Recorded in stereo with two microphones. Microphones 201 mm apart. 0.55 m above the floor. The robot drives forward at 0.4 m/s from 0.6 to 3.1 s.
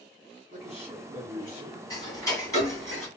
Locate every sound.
0.5 s a man speaking: 45° right (ahead or behind), 1.3 m; by 2.9 s 30° right (ahead or behind), 1.7 m
1.9 s ticking: 20° left (ahead or behind), 1.3 m; by 3.1 s 15° left (ahead or behind), 1.7 m